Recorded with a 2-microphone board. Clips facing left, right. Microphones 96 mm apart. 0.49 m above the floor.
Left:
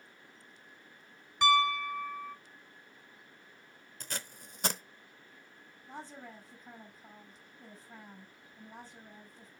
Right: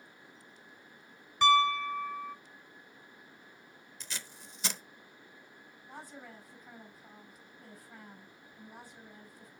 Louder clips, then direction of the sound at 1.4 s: Right 2 dB; 5° left (ahead or behind).